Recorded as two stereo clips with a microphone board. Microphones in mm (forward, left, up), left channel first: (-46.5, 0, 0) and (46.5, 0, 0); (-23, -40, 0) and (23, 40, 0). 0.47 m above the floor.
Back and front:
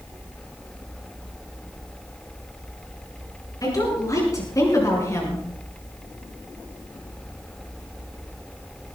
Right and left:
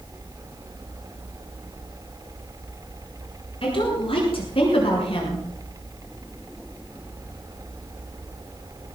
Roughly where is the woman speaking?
Behind right.